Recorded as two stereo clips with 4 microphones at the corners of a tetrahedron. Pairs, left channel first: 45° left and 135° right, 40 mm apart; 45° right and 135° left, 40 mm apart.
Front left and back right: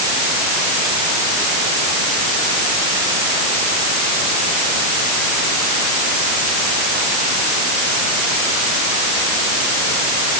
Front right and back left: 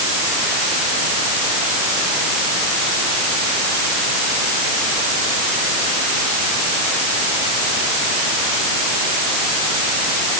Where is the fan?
I don't hear a fan.